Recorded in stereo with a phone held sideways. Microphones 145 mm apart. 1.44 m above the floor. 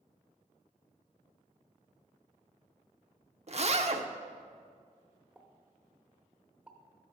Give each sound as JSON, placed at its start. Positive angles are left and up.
{"t": 3.5, "sound": "a zipper", "side_deg": -50, "distance_m": 0.6}
{"t": 5.3, "sound": "a pop", "side_deg": -10, "distance_m": 1.0}